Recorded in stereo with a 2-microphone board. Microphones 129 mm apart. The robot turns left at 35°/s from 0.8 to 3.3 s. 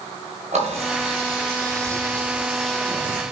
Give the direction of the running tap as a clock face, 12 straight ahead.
4 o'clock.